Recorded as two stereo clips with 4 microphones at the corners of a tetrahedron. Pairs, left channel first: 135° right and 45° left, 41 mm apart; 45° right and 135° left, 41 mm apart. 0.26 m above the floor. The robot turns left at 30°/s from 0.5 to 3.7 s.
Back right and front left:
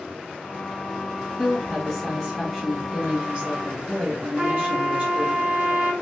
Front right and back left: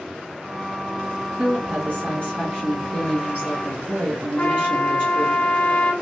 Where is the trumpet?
15° right, 1.3 m.